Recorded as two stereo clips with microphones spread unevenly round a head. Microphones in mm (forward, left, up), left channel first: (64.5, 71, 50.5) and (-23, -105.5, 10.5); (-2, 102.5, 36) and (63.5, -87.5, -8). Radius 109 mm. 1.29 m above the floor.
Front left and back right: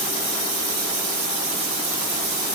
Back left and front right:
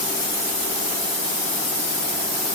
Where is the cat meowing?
I don't hear a cat meowing.